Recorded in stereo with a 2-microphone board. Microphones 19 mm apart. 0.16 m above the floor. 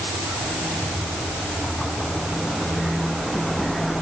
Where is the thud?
I don't hear a thud.